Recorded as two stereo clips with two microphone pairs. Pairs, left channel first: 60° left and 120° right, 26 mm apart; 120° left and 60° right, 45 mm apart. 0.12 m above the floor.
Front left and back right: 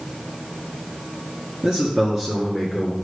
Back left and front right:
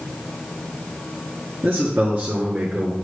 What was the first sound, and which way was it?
A man speaking, 85° right.